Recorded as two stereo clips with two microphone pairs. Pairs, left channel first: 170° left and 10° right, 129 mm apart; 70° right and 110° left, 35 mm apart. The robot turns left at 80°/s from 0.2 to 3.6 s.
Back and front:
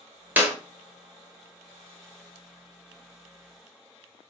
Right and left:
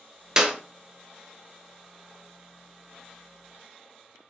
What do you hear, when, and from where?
0.4 s a clap: 55° left, 0.9 m; by 0.6 s 40° left, 0.9 m